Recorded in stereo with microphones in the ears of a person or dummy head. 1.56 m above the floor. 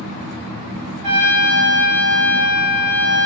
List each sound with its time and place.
1.0 s a trumpet: 40° right (ahead or behind), 1.9 m